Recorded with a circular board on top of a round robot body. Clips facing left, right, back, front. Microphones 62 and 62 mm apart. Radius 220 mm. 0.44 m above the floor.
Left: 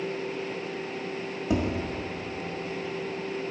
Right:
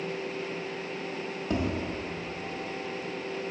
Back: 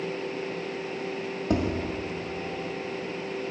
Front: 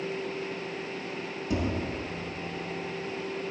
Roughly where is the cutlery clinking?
I don't hear cutlery clinking.